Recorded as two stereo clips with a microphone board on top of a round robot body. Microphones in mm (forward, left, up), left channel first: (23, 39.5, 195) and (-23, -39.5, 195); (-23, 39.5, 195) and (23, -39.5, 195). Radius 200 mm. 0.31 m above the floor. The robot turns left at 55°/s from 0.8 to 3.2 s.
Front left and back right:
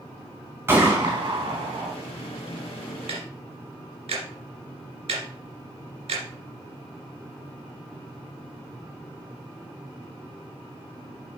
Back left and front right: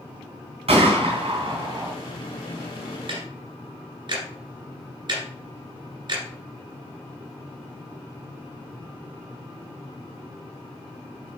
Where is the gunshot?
55° right, 3.5 m; by 1.9 s 115° right, 3.5 m.